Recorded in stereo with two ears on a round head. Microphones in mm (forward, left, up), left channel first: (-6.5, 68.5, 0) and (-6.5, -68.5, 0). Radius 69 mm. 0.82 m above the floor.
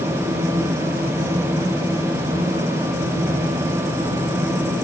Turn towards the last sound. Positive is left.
No sound to turn to.